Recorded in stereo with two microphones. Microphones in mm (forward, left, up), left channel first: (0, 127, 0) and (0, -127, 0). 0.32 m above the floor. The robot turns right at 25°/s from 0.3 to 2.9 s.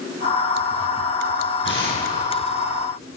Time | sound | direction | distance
1.6 | tearing paper | 45° left (ahead or behind) | 9.5 m